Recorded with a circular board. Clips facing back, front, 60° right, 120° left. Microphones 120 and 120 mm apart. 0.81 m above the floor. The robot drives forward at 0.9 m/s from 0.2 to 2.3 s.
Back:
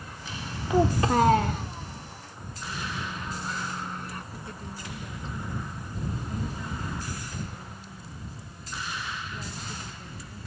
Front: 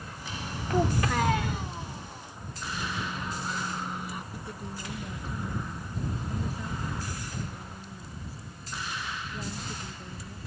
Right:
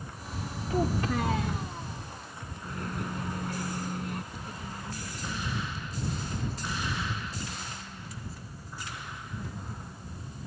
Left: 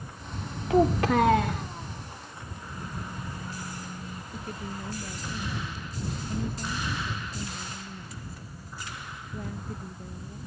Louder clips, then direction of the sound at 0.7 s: Back 4 dB, left 7 dB; 105° left.